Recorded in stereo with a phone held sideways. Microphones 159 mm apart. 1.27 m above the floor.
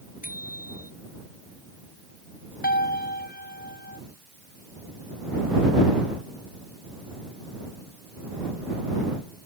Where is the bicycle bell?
65° left (ahead or behind).